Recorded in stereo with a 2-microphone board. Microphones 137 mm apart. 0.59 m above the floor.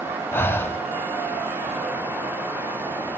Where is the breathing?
15° left (ahead or behind), 0.6 m.